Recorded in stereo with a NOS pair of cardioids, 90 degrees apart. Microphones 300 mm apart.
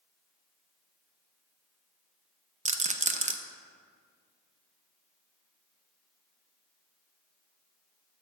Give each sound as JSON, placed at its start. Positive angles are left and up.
{"t": 2.6, "sound": "a rattle", "azimuth_deg": -25, "distance_m": 0.6}